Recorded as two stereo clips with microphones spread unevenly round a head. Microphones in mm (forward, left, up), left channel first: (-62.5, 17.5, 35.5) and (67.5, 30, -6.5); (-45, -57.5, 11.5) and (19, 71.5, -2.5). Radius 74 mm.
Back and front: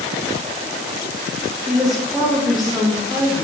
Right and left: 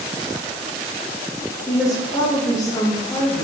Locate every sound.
1.7 s a woman speaking: 55° right, 0.7 m